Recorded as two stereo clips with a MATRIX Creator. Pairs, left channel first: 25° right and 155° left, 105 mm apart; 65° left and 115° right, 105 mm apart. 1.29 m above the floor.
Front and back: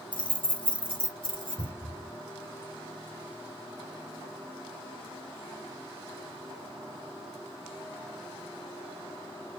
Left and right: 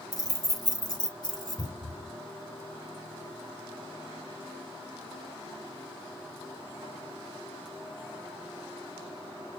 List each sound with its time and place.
0.1 s keys jangling: 15° left, 1.0 m; by 1.7 s 20° left, 1.8 m
1.6 s a cupboard door: 10° left, 2.5 m